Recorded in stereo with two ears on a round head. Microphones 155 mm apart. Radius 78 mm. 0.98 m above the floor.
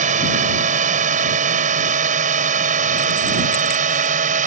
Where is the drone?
45° right (ahead or behind).